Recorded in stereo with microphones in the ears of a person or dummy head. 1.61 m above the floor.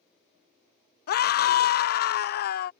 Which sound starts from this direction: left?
A scream, at 1.1 s.